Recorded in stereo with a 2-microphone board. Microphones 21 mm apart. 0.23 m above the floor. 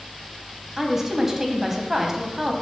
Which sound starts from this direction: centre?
A woman speaking, at 0.8 s.